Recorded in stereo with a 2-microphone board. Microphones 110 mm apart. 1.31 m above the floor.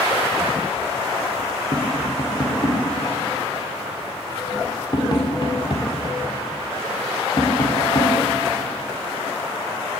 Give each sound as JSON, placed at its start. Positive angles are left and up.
{"t": 1.7, "sound": "tapping", "side_deg": 45, "distance_m": 3.5}